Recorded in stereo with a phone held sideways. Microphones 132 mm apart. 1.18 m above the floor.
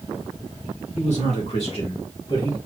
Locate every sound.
1.0 s a man speaking: 65° left (ahead or behind), 2 m; by 2.6 s 30° left (ahead or behind), 1.7 m